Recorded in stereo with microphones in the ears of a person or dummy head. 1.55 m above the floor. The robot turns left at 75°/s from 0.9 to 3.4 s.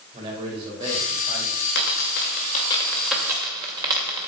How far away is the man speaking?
About 4.5 m.